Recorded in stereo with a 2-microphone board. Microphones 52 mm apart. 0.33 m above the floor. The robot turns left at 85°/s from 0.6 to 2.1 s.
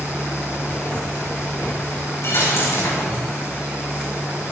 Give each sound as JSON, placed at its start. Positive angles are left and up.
{"t": 2.2, "sound": "a dropped coin", "side_deg": 65, "distance_m": 6.0}